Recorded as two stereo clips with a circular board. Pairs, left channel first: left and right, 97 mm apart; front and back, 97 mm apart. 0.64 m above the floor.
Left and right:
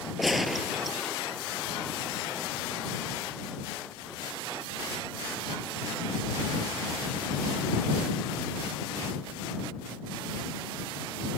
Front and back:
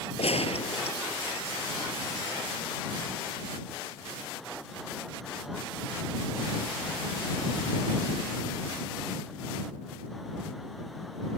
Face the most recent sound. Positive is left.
turn(degrees=0)